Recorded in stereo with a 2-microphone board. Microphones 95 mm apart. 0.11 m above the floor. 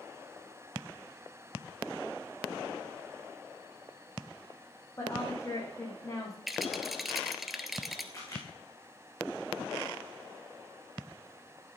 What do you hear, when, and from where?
5.0 s a woman speaking: 35° left (ahead or behind), 6 m
6.5 s a rattle: centre (ahead or behind), 1.3 m
8.1 s a camera shutter: 35° left (ahead or behind), 7 m